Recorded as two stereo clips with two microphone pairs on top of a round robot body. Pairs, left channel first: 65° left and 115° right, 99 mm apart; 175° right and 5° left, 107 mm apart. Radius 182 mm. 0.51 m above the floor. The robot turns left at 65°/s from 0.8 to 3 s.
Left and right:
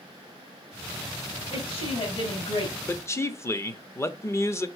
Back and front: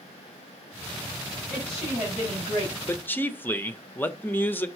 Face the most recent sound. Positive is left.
turn(degrees=115)